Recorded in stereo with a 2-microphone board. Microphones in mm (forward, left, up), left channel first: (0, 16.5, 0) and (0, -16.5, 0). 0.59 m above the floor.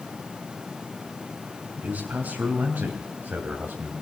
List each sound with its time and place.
1.8 s a man speaking: 65° right (ahead or behind), 3.5 m; by 3.9 s 75° right (ahead or behind), 3.5 m